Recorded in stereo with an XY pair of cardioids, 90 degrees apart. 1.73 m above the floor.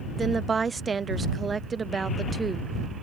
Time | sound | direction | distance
0.2 | a woman speaking | 35° right | ?